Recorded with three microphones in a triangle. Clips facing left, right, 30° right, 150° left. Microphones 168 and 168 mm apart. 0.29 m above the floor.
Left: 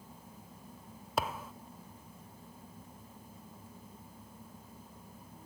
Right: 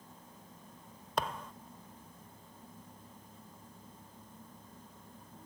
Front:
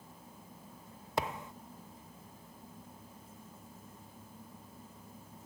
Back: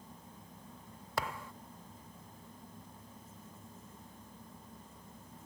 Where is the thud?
10° left, 0.6 m.